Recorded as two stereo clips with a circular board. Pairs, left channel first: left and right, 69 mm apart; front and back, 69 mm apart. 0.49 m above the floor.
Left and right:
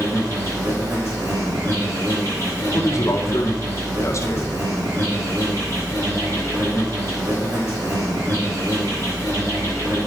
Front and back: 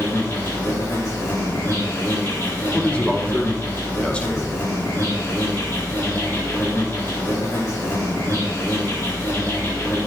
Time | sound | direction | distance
0.0 | an insect | 50° right | 5.5 m
2.7 | a man speaking | 70° left | 1.5 m